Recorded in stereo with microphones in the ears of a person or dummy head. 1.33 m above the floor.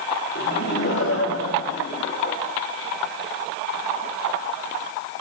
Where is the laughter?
60° left (ahead or behind), 2.5 m; by 2.4 s 40° left (ahead or behind), 2 m.